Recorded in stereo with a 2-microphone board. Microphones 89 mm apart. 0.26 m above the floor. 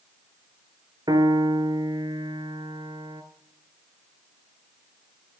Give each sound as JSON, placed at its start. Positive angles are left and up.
{"t": 1.1, "sound": "a piano", "side_deg": -50, "distance_m": 0.9}